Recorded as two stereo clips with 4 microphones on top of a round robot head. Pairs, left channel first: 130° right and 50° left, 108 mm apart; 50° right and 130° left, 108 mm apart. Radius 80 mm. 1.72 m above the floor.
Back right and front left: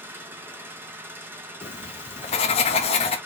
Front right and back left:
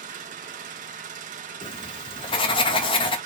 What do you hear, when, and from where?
0.0 s an engine running: 120° left, 0.9 m
1.6 s writing: 95° right, 0.8 m